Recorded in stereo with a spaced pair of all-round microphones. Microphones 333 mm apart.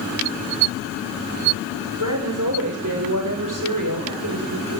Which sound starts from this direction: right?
A woman speaking, at 2.0 s.